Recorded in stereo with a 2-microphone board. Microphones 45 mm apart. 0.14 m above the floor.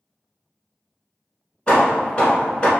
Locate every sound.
1.7 s hammering: 25° left (ahead or behind), 1.0 m